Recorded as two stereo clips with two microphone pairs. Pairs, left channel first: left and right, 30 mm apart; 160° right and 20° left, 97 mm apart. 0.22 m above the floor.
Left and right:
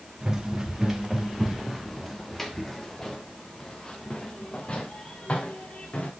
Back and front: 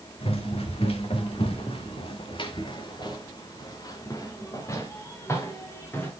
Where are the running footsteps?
160° right, 2.5 m; by 6.1 s 135° left, 4 m.